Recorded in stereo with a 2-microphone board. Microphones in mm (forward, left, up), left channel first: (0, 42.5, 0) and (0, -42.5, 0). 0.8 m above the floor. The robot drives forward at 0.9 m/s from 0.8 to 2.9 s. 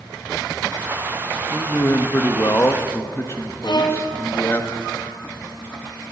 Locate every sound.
1.5 s a man speaking: 30° left (ahead or behind), 1.1 m
3.6 s a violin: 60° left (ahead or behind), 2.0 m